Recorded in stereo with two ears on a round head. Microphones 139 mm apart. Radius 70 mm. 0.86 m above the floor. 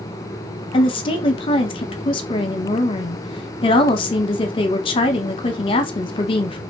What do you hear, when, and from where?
0.7 s a woman speaking: 35° left (ahead or behind), 0.8 m